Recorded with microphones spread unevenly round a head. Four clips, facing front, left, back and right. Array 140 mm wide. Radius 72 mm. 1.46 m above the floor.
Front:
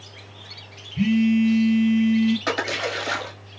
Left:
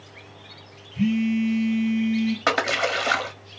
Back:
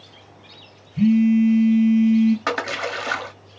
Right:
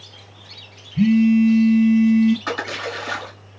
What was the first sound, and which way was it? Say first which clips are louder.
A phone buzzing: right 8 dB, back 3 dB; 105° right.